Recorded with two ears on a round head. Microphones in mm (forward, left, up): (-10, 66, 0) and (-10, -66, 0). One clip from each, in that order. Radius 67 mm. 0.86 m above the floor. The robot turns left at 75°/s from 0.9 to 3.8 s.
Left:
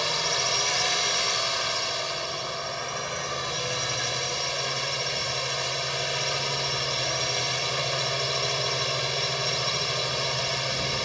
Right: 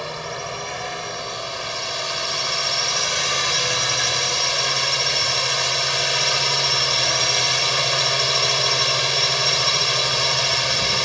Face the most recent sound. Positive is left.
turn(degrees=-145)